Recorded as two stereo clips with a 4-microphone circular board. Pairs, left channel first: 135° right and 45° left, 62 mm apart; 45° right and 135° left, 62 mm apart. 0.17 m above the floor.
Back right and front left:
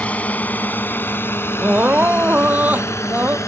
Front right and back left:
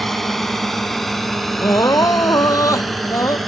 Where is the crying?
15° right.